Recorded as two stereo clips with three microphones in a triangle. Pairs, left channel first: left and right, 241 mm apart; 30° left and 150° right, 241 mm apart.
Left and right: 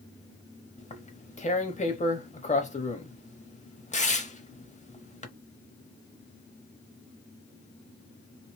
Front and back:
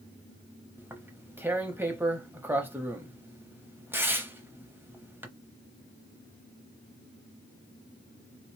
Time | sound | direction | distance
0.8 | tearing paper | 135° left | 0.8 m